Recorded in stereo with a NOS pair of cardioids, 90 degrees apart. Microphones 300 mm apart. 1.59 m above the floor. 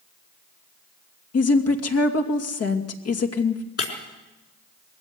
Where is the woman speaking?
55° left, 2.5 m.